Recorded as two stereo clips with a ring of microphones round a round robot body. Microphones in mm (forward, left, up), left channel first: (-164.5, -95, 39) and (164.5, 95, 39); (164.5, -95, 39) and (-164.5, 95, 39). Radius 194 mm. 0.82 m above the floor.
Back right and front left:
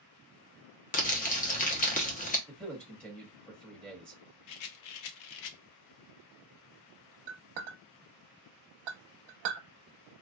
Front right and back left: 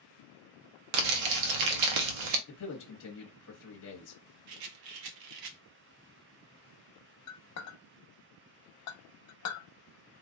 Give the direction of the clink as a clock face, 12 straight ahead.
11 o'clock.